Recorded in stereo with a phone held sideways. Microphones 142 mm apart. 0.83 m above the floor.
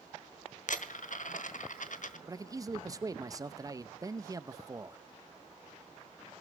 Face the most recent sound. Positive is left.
turn(degrees=-25)  # may be behind; listen again after turning